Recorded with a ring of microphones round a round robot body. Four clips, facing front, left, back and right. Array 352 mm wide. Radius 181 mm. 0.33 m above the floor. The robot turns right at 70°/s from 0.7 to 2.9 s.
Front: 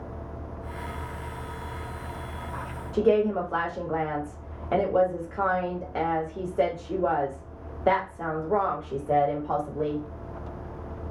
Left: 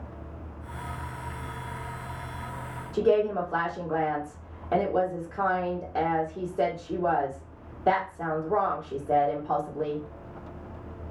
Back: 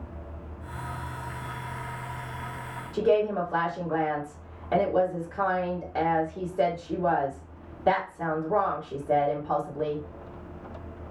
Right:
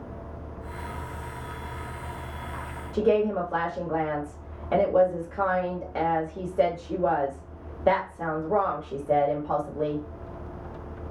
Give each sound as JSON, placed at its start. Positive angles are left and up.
{"t": 2.9, "sound": "a woman speaking", "azimuth_deg": -25, "distance_m": 1.2}